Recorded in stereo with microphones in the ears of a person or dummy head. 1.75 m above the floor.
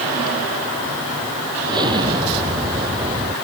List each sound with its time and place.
1.7 s an explosion: 20° right (ahead or behind)